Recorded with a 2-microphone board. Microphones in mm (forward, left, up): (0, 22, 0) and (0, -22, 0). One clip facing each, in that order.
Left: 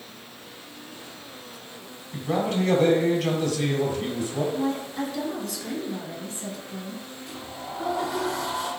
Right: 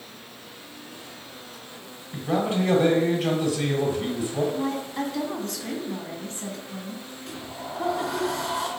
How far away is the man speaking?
About 1.7 m.